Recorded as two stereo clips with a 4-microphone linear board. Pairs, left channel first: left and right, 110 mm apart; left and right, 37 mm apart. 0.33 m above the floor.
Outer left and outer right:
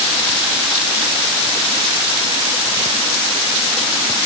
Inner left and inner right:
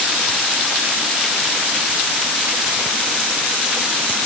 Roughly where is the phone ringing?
I don't hear a phone ringing.